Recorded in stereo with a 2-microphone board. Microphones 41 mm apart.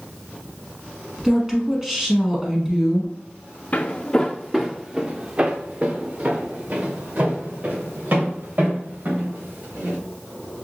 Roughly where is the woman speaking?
Centre.